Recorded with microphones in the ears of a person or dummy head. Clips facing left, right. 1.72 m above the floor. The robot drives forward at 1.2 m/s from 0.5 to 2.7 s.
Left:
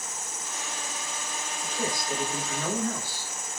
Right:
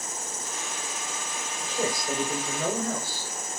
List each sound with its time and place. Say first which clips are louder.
0.0 s an insect: right 3 dB; 75° right (ahead or behind), 6.5 m; by 3.6 s 60° right (ahead or behind), 7.5 m
1.6 s a man speaking: right 3 dB; 60° right (ahead or behind), 8 m; by 3.3 s 50° right (ahead or behind), 8.5 m